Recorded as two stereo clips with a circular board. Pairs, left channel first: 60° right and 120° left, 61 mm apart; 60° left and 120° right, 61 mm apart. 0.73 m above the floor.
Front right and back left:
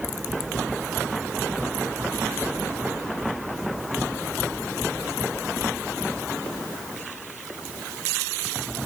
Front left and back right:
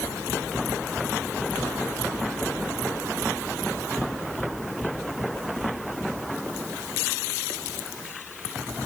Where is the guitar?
No guitar in this recording.